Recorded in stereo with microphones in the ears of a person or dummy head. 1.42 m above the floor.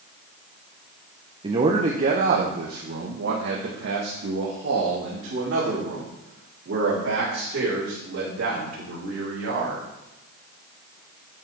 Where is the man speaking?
30° right (ahead or behind), 1.0 m; by 9.8 s 90° right, 5.5 m.